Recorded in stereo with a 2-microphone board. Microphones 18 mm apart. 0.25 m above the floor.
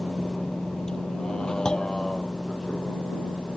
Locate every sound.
0.0 s a vehicle: 30° left (ahead or behind); by 3.6 s 80° left
1.6 s a clunk: 55° left (ahead or behind)